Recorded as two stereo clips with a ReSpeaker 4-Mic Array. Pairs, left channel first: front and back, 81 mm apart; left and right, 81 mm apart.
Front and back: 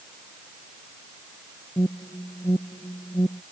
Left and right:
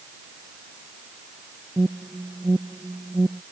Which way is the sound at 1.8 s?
25° right.